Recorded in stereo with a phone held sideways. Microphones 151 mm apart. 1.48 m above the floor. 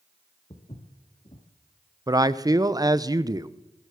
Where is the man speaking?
25° right (ahead or behind), 0.7 m.